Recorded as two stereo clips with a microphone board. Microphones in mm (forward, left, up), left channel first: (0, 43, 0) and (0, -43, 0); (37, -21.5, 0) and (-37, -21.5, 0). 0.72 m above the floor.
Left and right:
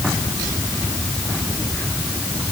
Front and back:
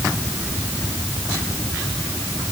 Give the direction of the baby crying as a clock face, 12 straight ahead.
No baby crying in this recording.